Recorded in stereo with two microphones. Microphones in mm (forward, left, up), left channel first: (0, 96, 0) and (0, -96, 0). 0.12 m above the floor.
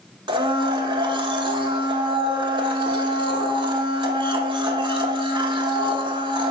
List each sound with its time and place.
0.3 s a blender: 25° right (ahead or behind), 0.5 m